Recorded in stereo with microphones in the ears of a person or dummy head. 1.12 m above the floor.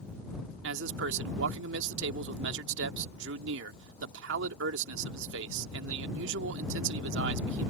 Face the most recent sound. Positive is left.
turn(degrees=-80)